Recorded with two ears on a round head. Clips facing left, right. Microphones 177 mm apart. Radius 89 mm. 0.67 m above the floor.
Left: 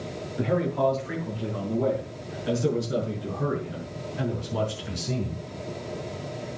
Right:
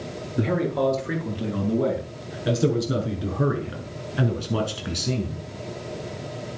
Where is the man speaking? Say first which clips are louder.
Right 2 dB; 55° right (ahead or behind), 8.5 m; by 5.5 s 85° right, 6 m.